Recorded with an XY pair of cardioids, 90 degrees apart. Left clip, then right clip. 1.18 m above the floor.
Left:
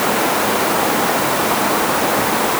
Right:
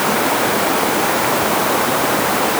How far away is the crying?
I don't hear crying.